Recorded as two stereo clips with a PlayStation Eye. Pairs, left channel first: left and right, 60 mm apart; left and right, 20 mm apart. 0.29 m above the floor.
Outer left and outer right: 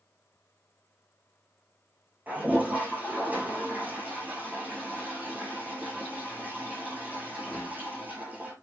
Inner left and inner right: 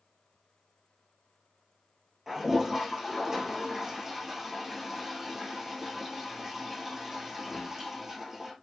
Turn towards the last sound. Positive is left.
turn(degrees=-30)  # may be behind; listen again after turning